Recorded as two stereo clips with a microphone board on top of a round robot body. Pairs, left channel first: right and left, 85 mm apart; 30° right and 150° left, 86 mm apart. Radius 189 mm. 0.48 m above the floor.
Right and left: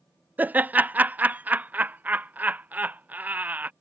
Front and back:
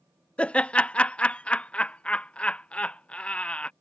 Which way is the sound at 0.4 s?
35° left.